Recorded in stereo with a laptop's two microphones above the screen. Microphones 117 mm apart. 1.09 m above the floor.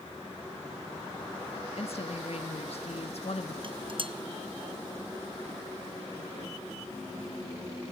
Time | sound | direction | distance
1.8 | a woman speaking | 60° left (ahead or behind) | 1.4 m
3.6 | dishes clattering | 45° right (ahead or behind) | 0.7 m